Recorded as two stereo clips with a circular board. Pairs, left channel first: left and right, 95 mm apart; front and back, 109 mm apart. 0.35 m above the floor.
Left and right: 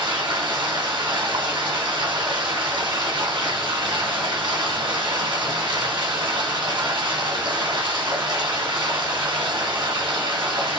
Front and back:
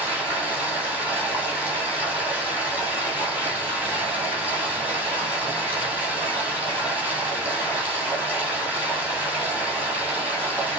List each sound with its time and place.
0.0 s running water: 105° right, 2.5 m